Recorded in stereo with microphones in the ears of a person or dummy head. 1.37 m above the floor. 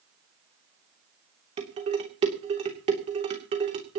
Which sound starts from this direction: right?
Dishes clattering, at 1.6 s.